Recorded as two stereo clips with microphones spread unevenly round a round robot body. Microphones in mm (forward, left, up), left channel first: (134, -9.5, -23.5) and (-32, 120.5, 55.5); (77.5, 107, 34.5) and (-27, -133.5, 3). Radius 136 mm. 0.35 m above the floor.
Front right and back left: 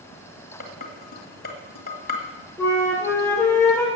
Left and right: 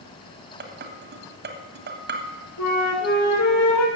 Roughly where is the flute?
Ahead left.